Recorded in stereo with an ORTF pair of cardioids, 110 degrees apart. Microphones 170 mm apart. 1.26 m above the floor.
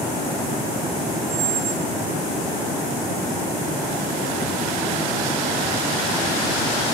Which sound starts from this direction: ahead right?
A squeak, at 1.3 s.